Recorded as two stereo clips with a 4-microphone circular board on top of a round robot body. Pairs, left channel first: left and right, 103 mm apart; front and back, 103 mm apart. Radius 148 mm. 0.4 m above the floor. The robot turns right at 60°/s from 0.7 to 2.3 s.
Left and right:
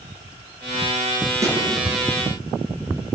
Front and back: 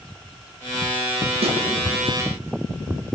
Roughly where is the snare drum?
Behind right.